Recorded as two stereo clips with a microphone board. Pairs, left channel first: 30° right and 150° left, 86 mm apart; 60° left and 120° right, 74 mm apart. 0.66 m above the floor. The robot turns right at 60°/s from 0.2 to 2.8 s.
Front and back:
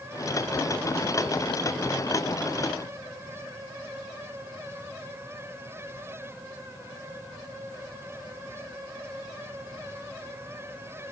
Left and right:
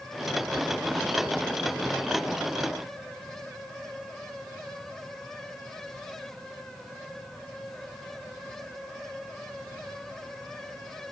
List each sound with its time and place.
Only background noise.